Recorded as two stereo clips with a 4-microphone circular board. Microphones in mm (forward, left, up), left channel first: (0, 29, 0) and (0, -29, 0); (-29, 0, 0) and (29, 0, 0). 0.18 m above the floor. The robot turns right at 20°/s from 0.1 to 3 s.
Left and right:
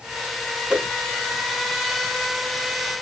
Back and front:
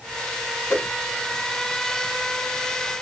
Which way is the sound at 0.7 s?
160° right.